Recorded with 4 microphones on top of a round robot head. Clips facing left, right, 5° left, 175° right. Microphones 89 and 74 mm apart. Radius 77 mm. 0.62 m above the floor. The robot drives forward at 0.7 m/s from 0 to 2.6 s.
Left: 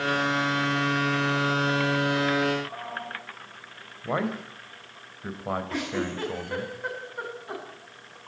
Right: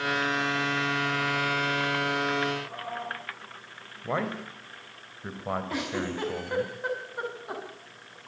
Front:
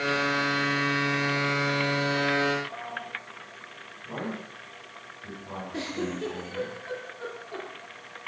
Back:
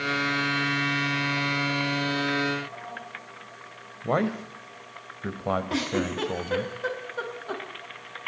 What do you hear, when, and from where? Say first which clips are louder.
4.0 s a man speaking: left 2 dB, back 9 dB; 175° left, 3.5 m
5.7 s a giggle: left 1 dB, back 5 dB; 170° right, 5.5 m